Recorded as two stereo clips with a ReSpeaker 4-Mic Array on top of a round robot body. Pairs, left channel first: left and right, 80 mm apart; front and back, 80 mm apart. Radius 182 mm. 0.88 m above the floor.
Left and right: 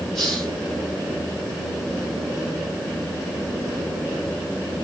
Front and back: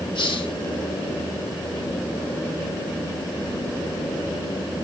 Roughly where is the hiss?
Ahead.